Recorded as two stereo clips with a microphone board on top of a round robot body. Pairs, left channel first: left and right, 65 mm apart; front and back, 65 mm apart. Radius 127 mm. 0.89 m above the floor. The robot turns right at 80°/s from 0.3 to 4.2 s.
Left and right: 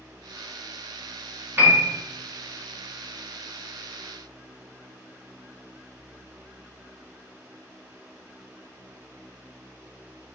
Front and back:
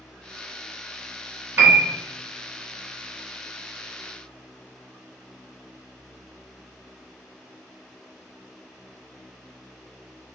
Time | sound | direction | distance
1.6 | a piano | 140° right | 0.9 m